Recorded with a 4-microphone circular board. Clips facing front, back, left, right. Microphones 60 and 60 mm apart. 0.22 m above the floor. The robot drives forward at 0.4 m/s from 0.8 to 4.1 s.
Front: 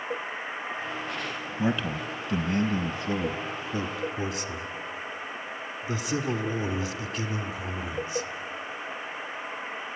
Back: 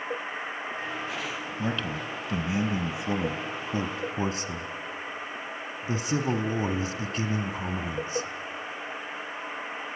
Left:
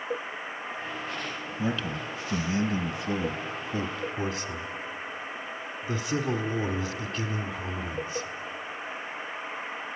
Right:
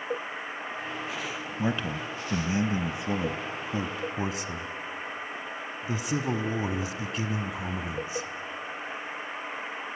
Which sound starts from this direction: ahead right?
A man speaking, at 1.6 s.